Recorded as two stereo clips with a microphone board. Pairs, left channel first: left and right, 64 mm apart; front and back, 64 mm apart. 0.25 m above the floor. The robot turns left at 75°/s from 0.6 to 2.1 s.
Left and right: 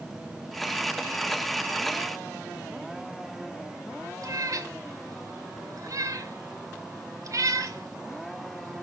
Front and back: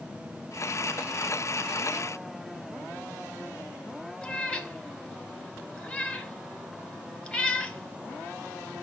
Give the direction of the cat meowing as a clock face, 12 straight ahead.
2 o'clock.